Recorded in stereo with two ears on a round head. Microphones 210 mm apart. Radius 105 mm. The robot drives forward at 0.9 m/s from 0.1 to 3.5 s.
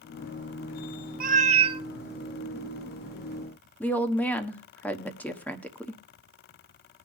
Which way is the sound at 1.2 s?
35° right (ahead or behind).